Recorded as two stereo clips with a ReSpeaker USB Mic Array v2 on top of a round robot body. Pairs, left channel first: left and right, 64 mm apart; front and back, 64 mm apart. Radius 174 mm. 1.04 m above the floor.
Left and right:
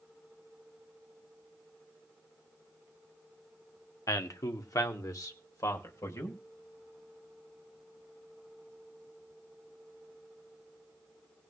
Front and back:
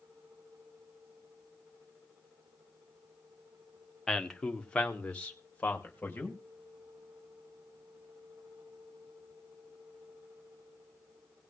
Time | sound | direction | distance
4.1 | a man speaking | 80° left | 1.3 m